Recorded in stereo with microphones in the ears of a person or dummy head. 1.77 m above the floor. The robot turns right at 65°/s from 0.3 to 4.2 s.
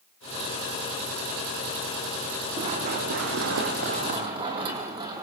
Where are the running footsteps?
25° right (ahead or behind), 4.5 m; by 5.2 s 20° right (ahead or behind), 3.5 m.